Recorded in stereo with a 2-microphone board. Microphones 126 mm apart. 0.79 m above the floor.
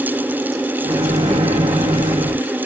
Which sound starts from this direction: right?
A microwave, at 0.8 s.